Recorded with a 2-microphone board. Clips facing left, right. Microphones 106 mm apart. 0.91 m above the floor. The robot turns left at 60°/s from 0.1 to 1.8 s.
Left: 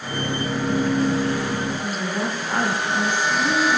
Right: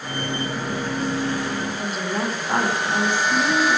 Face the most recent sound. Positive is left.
turn(degrees=-40)  # may be behind; listen again after turning